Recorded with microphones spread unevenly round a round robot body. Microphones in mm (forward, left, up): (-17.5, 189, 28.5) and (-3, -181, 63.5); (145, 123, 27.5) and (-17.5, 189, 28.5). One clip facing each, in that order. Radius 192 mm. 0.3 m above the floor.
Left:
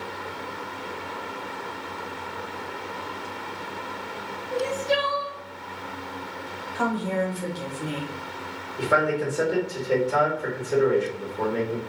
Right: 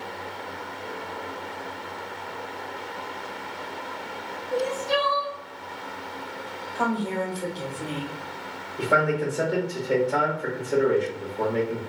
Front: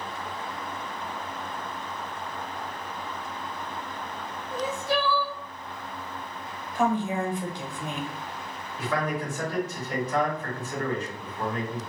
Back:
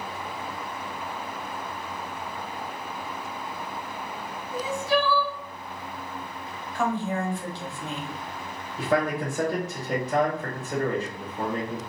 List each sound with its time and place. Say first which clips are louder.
4.5 s crying: even, back 2 dB; 25° right, 1.3 m
6.8 s a woman speaking: left 1 dB, front 2 dB; 40° left, 1.1 m
8.8 s a man speaking: even, back 4 dB; 155° left, 1.3 m